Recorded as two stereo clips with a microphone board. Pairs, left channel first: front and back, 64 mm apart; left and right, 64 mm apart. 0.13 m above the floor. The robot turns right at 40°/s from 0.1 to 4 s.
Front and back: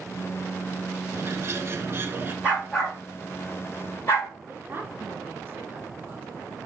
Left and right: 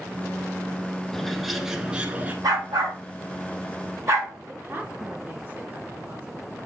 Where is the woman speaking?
140° right, 1.9 m.